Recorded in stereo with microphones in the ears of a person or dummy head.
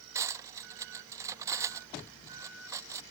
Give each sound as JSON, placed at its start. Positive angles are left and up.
{"t": 0.1, "sound": "cutlery clinking", "side_deg": -15}